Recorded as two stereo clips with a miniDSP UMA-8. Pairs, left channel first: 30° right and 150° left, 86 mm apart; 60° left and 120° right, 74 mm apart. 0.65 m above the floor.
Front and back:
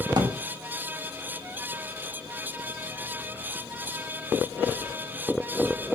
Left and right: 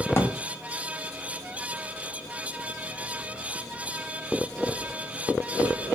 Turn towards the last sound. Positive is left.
turn(degrees=120)